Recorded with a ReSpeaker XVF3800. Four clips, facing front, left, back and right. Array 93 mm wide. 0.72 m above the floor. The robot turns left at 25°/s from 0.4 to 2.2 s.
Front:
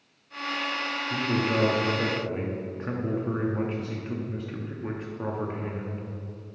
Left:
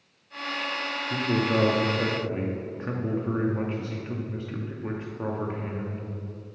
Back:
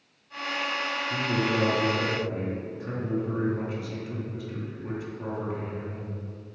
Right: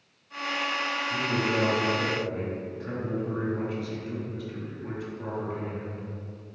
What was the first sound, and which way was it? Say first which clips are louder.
A man speaking: left 4 dB, front 1 dB; 75° left.